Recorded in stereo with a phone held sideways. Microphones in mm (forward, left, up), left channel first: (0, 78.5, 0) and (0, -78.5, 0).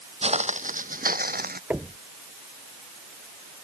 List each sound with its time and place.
0.2 s footsteps: 40° right (ahead or behind); by 1.6 s 75° right (ahead or behind)
1.7 s knocking: 10° right (ahead or behind)